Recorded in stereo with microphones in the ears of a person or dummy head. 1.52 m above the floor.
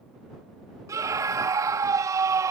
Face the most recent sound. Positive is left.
turn(degrees=-25)  # may be behind; listen again after turning